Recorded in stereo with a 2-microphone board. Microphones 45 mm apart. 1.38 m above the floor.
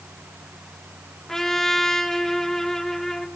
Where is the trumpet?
10° left (ahead or behind), 1.2 m.